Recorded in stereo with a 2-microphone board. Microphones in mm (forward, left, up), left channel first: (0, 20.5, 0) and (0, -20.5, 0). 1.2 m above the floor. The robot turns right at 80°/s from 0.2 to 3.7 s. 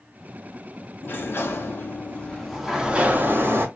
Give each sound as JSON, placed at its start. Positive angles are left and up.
{"t": 1.0, "sound": "a sliding door", "azimuth_deg": 60, "distance_m": 0.6}